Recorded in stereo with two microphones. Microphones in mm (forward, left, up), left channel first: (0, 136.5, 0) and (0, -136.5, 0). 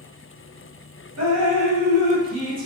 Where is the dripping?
65° right (ahead or behind), 2.0 m.